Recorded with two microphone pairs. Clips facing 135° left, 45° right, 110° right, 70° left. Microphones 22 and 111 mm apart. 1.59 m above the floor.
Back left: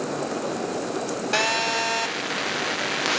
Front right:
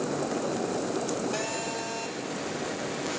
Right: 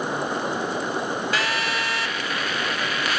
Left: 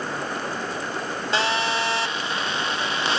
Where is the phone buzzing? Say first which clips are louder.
Back left 9 dB, left 2 dB; 135° left, 1.0 m.